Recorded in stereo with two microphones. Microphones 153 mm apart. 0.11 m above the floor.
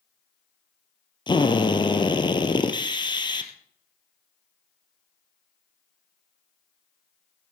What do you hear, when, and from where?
1.3 s a drill: 30° left (ahead or behind), 1.7 m